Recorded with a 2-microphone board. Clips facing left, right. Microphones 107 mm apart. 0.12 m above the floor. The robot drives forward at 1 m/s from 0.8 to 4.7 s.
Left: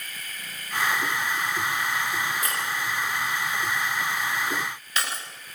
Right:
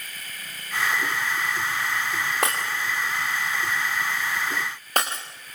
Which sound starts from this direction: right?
Breaking glass, at 2.4 s.